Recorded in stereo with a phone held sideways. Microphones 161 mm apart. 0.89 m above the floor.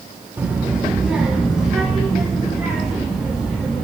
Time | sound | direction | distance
0.4 | a child speaking | 10° right (ahead or behind) | 0.8 m